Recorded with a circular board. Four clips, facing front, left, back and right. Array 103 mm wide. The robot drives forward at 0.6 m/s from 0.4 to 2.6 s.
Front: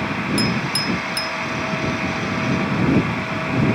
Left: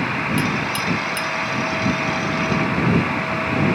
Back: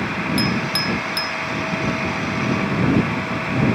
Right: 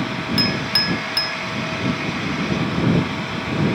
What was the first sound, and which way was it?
A clink, 105° right.